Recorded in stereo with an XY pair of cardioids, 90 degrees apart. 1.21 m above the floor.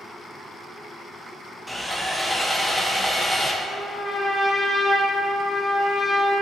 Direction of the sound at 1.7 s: 10° right.